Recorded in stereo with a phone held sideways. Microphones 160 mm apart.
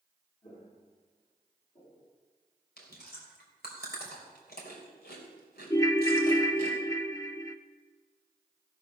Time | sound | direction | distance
0.4 | footsteps | 40° left (ahead or behind) | 4.5 m
2.8 | chewing | 80° left | 3 m
5.7 | a ringtone | 20° left (ahead or behind) | 0.7 m